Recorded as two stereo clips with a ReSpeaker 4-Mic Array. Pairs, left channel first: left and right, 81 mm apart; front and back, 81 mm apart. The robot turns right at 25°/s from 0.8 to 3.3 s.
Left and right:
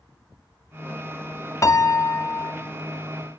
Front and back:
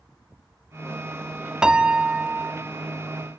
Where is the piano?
105° left, 0.8 m; by 2.5 s 125° left, 0.8 m.